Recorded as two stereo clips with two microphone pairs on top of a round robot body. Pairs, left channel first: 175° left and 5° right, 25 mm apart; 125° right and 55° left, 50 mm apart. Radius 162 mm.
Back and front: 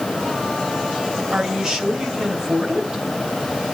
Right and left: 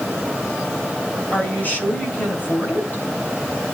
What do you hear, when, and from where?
1.3 s a woman speaking: 70° right, 3.5 m